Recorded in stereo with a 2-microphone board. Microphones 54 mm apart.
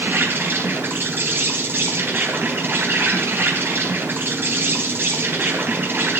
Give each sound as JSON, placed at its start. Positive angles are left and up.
{"t": 0.0, "sound": "an insect", "side_deg": -40, "distance_m": 3.5}